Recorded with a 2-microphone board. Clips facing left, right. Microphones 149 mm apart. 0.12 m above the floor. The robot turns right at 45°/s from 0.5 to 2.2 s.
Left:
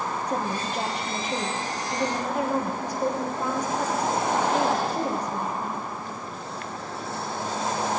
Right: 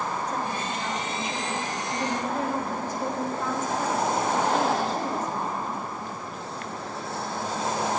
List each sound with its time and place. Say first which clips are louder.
0.3 s a woman speaking: left 2 dB; 90° left, 3 m; by 5.8 s 165° left, 3 m